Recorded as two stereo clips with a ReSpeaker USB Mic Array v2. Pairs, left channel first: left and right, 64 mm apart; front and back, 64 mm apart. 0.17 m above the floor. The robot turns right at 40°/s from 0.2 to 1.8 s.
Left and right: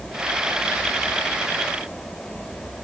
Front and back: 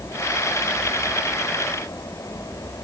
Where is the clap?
I don't hear a clap.